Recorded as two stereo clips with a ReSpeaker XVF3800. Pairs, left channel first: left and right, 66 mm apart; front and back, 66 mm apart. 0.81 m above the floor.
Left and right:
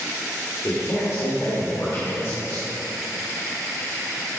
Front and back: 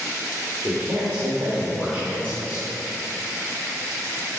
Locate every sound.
0.6 s a man speaking: 130° left, 2.0 m